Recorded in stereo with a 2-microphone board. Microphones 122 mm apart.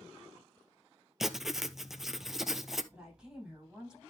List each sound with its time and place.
1.2 s writing: centre (ahead or behind), 0.7 m
2.9 s a woman speaking: 5° right (ahead or behind), 9 m